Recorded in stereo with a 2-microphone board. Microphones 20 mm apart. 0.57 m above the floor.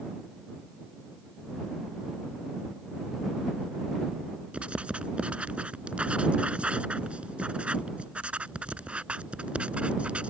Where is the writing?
65° right (ahead or behind).